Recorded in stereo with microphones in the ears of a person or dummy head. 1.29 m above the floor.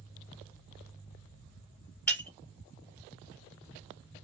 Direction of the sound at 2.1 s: 15° left (ahead or behind).